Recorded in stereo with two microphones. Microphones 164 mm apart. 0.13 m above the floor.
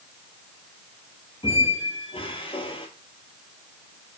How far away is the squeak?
About 1.2 m.